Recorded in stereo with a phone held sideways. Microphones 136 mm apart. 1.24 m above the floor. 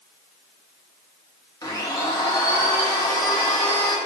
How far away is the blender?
About 0.7 m.